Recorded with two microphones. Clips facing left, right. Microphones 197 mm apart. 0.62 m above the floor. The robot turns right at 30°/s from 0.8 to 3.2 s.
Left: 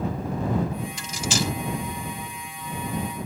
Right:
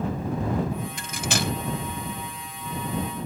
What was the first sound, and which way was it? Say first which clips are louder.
Cutlery clinking: left 1 dB; 55° right (ahead or behind).